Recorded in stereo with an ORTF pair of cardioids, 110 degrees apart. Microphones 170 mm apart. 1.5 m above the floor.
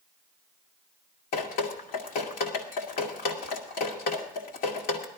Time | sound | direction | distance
1.3 | dripping | 70° left | 2 m